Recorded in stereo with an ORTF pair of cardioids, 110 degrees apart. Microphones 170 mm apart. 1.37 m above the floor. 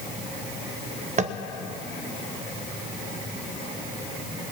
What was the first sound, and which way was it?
Tapping, 45° right.